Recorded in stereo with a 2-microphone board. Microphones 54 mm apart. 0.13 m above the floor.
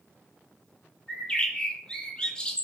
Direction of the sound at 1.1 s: 20° left (ahead or behind).